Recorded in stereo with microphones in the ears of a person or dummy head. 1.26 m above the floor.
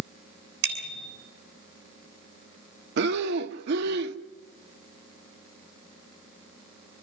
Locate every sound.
0.6 s a bicycle bell: 65° right (ahead or behind), 8 m
3.0 s breathing: 60° right (ahead or behind), 1.2 m